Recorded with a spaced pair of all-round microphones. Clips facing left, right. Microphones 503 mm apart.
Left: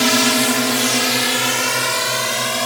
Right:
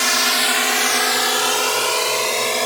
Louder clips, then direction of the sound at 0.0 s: Left 10 dB; 75° left (ahead or behind).